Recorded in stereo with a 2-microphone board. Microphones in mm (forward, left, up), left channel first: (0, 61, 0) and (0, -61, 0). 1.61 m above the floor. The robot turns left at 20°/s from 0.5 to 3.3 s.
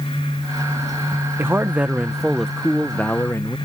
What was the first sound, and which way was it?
A man speaking, 160° right.